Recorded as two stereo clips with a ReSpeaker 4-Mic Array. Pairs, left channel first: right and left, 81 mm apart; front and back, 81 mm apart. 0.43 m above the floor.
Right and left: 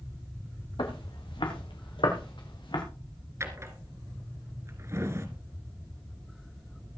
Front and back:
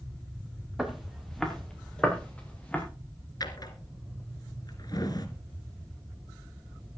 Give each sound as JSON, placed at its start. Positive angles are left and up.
{"t": 0.8, "sound": "footsteps", "azimuth_deg": -90, "distance_m": 3.5}
{"t": 3.4, "sound": "a drawer", "azimuth_deg": 35, "distance_m": 1.7}